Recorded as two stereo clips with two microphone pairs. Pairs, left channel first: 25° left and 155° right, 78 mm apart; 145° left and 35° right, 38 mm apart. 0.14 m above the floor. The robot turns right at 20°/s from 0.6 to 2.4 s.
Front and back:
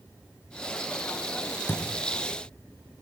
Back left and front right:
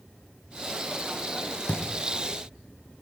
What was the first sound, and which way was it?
A thud, 85° left.